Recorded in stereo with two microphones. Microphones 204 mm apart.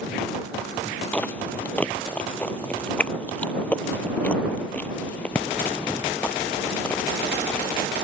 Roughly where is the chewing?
Centre.